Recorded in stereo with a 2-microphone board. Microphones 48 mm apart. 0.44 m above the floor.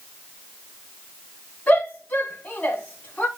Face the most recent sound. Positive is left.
turn(degrees=30)  # may be behind; listen again after turning